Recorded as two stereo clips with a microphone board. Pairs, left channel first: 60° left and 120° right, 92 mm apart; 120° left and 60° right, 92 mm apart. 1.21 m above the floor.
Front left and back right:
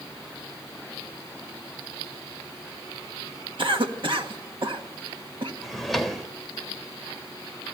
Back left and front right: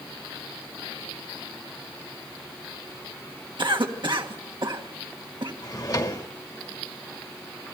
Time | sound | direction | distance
3.6 | a cough | 95° right | 1.5 m
5.6 | a drawer | 150° left | 1.3 m